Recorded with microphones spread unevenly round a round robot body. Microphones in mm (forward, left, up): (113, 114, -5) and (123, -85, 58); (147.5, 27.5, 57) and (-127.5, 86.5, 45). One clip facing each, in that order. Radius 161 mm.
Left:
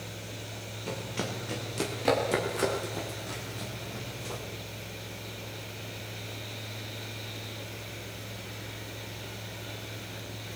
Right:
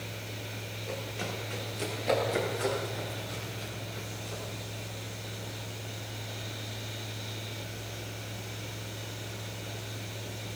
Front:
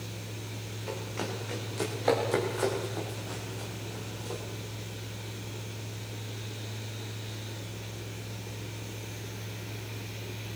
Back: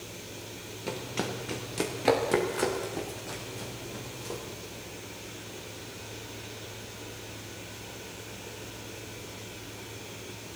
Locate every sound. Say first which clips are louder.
0.9 s running footsteps: left 3 dB, back 2 dB; 130° left, 6 m; by 4.4 s 105° left, 9 m